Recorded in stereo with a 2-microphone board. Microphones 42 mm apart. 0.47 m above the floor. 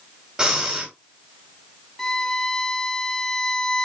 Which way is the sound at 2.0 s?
10° left (ahead or behind).